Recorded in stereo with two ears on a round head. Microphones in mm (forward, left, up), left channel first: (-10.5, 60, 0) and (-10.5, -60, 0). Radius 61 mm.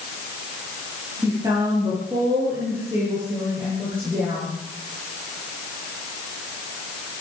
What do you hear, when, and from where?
1.2 s a woman speaking: 25° right (ahead or behind), 9 m; by 4.5 s 15° right (ahead or behind), 13 m